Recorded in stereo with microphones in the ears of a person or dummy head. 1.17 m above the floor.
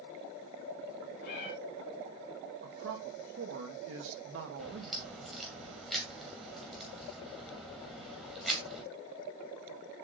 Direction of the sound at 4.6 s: Centre (ahead or behind).